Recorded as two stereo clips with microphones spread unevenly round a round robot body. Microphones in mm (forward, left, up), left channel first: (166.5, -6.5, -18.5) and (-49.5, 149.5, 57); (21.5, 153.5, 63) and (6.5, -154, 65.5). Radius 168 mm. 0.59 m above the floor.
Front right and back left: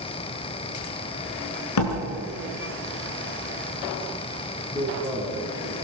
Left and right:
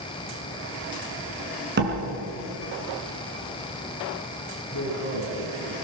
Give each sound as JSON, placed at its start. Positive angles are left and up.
{"t": 1.8, "sound": "a door slam", "azimuth_deg": -35, "distance_m": 4.5}
{"t": 4.7, "sound": "a man speaking", "azimuth_deg": 40, "distance_m": 7.0}